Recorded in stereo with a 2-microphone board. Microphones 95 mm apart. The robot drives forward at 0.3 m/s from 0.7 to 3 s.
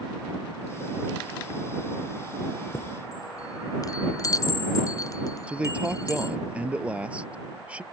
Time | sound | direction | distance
2.7 | a chime | 40° left (ahead or behind) | ?
5.5 | a man speaking | 15° right (ahead or behind) | ?